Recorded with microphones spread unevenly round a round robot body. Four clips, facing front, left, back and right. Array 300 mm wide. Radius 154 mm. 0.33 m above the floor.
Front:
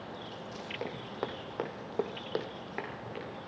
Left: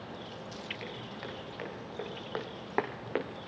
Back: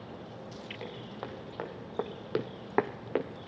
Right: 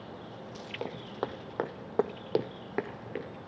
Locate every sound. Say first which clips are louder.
0.8 s footsteps: right 6 dB, front 5 dB; 55° right, 2 m; by 3.3 s 160° left, 1.3 m